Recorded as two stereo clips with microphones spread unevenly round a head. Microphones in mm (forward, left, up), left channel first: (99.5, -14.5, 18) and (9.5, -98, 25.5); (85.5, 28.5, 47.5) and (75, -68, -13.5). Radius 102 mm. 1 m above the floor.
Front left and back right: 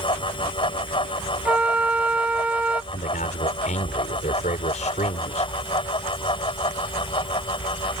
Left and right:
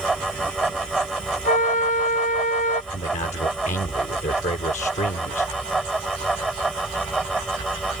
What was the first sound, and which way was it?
A fan, 5° right.